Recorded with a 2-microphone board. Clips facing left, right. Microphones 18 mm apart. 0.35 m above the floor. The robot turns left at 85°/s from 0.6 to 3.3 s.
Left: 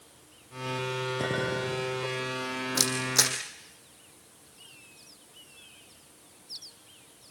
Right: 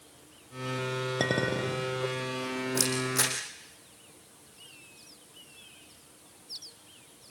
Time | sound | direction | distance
1.2 | a clink | 55° right | 4.5 m
2.8 | a camera shutter | 85° left | 4.5 m